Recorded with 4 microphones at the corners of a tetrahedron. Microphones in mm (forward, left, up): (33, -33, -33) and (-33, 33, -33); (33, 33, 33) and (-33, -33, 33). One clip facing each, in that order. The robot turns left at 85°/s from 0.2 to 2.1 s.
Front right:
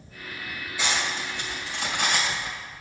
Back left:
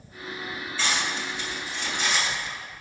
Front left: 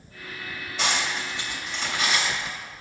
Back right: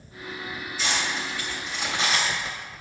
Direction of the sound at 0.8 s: 30° left.